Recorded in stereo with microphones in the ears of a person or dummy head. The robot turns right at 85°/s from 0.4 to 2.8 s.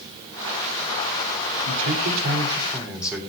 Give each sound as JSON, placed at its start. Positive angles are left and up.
{"t": 1.6, "sound": "a man speaking", "azimuth_deg": -105, "distance_m": 3.5}